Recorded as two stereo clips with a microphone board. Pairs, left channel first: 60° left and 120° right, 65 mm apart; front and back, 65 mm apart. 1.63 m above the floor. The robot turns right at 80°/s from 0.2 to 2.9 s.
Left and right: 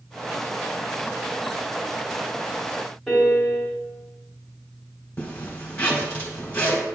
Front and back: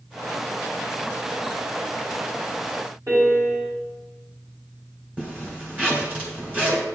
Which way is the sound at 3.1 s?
145° left.